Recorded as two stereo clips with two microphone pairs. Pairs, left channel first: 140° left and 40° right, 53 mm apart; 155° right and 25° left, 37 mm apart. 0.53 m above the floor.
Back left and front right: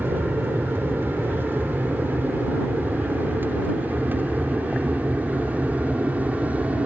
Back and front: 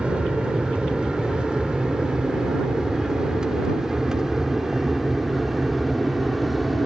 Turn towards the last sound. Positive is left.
turn(degrees=-60)